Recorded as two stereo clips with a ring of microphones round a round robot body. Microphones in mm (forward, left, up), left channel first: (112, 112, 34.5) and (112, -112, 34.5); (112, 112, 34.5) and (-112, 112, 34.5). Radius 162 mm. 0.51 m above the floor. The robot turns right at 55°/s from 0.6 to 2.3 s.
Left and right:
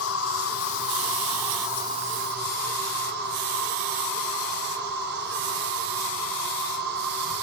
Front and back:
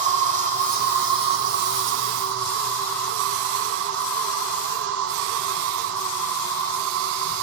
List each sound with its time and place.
0.0 s an insect: 125° left, 2 m; by 7.4 s 145° right, 2 m